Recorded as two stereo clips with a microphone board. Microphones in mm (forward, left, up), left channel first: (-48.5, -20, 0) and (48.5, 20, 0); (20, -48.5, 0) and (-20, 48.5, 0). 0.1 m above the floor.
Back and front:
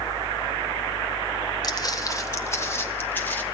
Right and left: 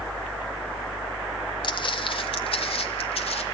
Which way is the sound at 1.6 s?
110° right.